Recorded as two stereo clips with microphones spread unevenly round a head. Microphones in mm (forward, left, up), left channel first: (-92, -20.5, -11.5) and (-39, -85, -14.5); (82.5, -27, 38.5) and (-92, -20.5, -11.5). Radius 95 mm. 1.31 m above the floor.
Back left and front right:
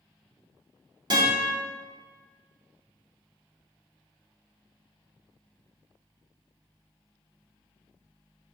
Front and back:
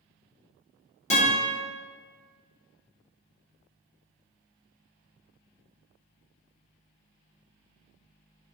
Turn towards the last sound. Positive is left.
turn(degrees=-20)